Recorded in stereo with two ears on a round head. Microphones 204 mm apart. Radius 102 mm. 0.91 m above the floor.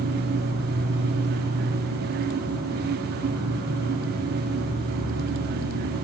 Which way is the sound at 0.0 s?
75° right (ahead or behind).